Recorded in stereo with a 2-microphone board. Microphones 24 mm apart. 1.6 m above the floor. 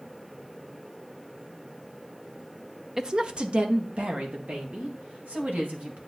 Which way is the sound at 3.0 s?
20° right (ahead or behind).